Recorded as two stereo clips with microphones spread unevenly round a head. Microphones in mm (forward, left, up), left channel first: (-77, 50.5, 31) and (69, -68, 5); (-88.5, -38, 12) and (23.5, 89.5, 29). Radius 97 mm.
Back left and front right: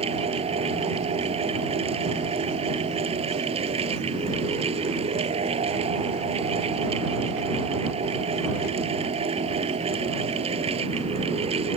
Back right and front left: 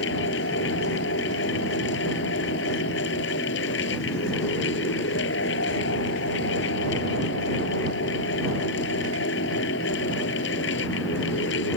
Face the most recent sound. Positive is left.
turn(degrees=-100)